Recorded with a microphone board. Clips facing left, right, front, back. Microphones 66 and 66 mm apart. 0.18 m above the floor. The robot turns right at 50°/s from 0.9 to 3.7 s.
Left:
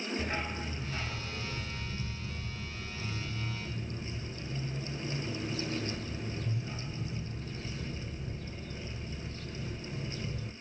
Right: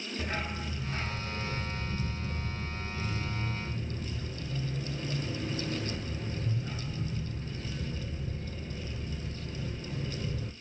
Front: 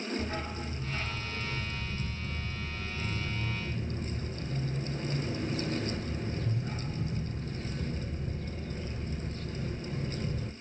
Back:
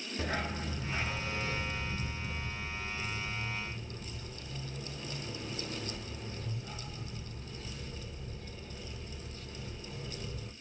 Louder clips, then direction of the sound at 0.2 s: Even, even; 175° right.